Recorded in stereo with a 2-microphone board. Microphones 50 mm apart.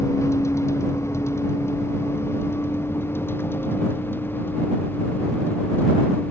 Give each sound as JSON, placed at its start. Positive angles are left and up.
{"t": 0.0, "sound": "a vehicle", "side_deg": 70}